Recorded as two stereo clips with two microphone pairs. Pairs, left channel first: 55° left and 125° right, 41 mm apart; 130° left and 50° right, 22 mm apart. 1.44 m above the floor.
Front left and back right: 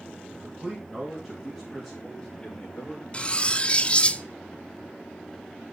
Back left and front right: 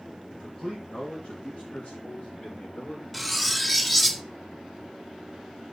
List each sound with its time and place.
0.3 s a man speaking: 170° left, 2.5 m; by 3.0 s 130° left, 5 m
3.1 s cutlery clinking: 40° left, 0.5 m